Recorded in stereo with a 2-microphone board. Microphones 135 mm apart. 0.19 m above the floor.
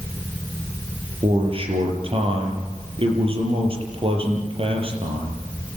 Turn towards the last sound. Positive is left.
turn(degrees=-45)  # may be behind; listen again after turning